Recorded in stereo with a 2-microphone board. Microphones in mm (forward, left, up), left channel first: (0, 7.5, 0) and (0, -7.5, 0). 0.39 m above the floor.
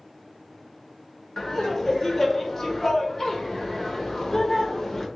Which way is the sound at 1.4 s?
30° left (ahead or behind).